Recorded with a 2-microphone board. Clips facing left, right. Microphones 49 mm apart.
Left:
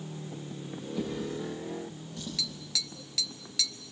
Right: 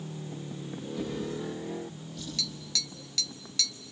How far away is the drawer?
About 8.5 m.